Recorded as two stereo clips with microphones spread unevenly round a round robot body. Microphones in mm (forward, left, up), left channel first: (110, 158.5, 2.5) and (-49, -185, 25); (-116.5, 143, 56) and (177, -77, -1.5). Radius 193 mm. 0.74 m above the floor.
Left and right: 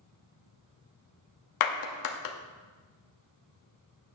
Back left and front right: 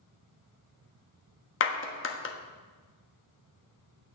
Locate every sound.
1.6 s a clap: 85° left, 1.2 m